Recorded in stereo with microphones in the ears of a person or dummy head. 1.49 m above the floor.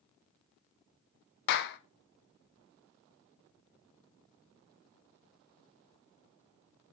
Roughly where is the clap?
Left.